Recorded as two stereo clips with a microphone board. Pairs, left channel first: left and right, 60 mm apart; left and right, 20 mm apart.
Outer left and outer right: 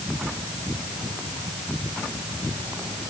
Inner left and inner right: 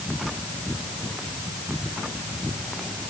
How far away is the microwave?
I don't hear a microwave.